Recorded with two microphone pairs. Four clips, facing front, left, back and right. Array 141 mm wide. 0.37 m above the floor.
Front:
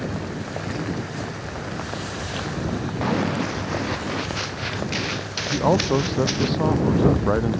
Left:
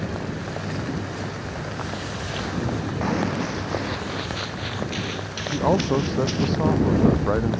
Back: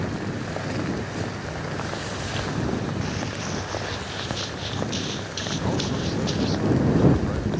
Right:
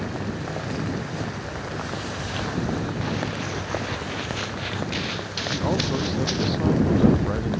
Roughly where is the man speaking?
Ahead left.